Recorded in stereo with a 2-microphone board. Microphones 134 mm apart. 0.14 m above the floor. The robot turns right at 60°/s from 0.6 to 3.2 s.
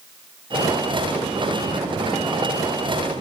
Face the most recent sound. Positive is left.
No sound to turn to.